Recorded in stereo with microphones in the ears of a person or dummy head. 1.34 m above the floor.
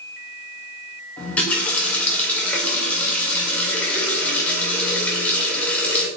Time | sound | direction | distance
1.2 | a running tap | 10° left (ahead or behind) | 0.5 m